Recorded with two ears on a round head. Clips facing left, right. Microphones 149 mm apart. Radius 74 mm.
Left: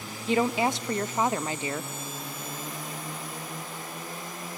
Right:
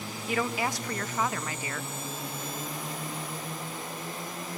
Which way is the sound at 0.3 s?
25° left (ahead or behind).